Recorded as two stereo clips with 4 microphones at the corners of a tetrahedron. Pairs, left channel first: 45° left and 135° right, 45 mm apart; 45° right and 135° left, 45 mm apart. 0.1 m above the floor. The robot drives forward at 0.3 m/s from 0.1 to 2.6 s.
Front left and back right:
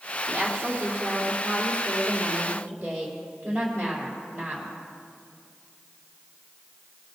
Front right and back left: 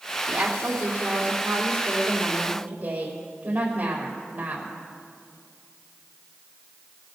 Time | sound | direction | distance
0.3 | a woman speaking | 175° right | 4 m